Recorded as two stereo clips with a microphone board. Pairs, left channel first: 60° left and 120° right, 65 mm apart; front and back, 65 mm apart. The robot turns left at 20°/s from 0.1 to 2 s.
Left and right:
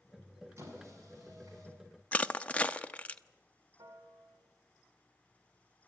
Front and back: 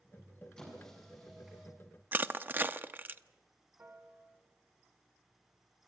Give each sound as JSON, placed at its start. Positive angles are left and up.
{"t": 0.6, "sound": "a squeak", "azimuth_deg": -75, "distance_m": 7.0}
{"t": 2.1, "sound": "crushing", "azimuth_deg": 130, "distance_m": 0.6}
{"t": 3.8, "sound": "a piano", "azimuth_deg": -120, "distance_m": 2.0}